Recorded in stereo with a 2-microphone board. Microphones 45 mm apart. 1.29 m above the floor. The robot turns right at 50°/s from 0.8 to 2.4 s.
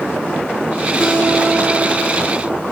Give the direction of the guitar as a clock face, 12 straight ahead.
5 o'clock.